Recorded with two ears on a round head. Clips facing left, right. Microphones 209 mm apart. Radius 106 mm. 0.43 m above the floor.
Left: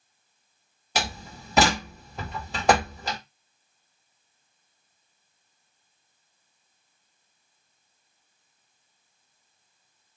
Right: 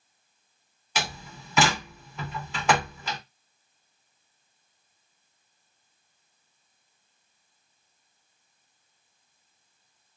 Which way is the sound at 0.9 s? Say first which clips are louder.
Left 3 dB; 35° left (ahead or behind).